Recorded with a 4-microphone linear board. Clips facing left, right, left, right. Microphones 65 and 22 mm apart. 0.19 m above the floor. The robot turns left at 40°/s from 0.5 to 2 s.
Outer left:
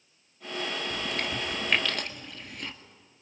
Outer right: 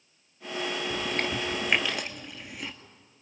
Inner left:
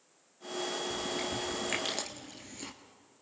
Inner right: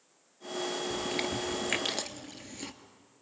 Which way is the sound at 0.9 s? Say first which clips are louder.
Outer right 2 dB, inner right 2 dB; 45° right (ahead or behind).